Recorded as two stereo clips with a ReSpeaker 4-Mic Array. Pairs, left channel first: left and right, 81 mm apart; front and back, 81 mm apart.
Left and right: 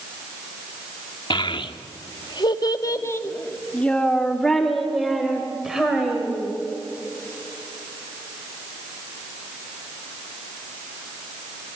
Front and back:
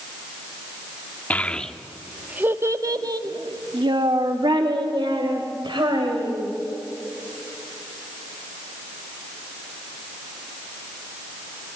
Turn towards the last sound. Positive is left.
turn(degrees=-175)